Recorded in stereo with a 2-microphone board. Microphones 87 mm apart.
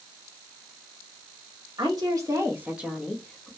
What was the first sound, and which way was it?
A woman speaking, 55° right (ahead or behind).